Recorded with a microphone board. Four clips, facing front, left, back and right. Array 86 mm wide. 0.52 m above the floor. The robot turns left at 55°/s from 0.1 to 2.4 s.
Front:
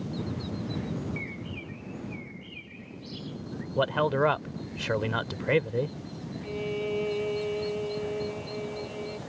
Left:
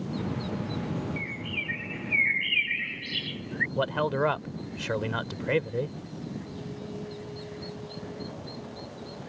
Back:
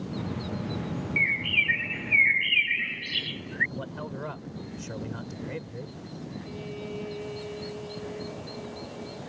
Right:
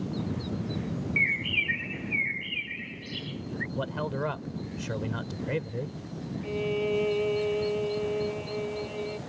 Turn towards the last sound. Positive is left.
turn(degrees=-70)